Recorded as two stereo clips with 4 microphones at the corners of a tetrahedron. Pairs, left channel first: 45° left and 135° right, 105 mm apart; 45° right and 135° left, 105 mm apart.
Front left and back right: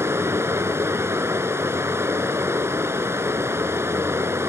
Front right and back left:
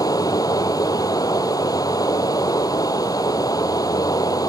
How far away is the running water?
About 0.9 m.